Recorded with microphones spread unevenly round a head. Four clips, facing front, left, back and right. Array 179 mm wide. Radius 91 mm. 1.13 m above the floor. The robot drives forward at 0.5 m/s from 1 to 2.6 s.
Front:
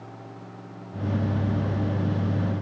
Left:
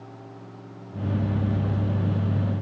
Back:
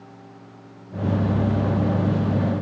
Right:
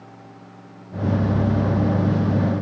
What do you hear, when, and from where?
Only background noise.